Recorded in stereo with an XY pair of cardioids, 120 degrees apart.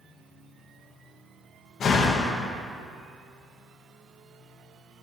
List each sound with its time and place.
1.8 s a door slam: 50° left, 0.5 m